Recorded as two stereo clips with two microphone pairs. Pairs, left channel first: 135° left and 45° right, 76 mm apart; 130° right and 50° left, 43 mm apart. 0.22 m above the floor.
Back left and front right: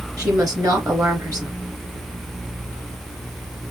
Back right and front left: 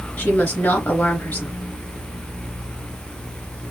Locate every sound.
0.2 s a woman speaking: 85° right, 3 m